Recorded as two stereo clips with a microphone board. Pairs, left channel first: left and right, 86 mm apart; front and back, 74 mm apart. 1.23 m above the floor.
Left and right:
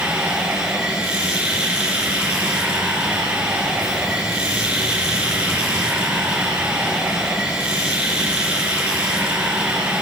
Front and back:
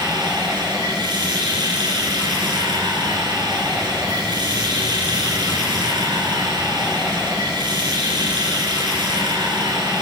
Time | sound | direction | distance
0.0 | running water | 170° right | 5 m